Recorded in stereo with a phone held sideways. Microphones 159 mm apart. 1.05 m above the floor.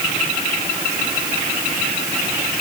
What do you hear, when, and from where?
Only background noise.